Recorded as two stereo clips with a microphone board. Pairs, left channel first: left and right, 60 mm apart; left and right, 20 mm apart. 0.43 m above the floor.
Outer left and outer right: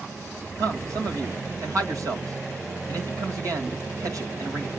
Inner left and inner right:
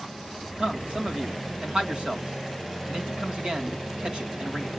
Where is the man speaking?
65° right (ahead or behind), 2 m.